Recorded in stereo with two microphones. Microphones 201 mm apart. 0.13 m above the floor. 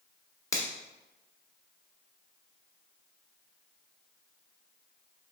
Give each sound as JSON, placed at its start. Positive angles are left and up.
{"t": 0.5, "sound": "a finger snap", "side_deg": 15, "distance_m": 0.9}